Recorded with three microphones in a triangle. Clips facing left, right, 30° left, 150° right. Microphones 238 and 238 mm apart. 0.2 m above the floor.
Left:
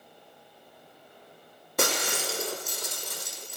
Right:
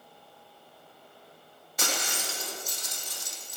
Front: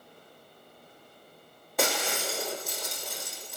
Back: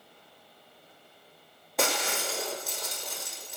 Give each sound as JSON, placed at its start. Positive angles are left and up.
{"t": 1.8, "sound": "breaking glass", "azimuth_deg": 120, "distance_m": 5.5}